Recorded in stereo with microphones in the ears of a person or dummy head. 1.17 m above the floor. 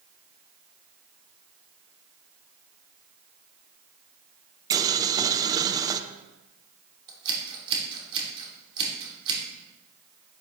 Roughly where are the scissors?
Right.